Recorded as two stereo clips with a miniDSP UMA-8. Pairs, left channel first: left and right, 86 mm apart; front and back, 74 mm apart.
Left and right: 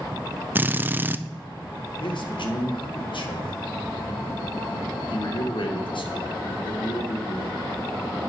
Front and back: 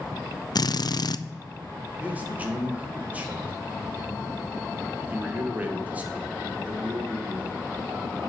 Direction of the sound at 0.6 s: 25° right.